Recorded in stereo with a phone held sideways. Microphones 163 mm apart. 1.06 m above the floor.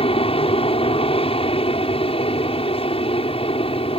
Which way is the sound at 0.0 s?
35° left (ahead or behind).